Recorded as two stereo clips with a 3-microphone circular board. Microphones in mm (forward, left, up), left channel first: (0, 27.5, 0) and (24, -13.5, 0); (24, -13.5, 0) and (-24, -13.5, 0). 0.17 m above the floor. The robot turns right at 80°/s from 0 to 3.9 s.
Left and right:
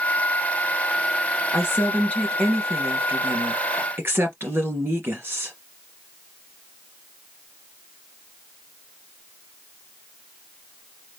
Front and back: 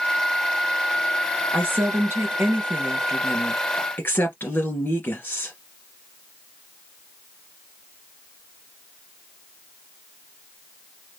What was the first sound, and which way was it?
A woman speaking, 135° left.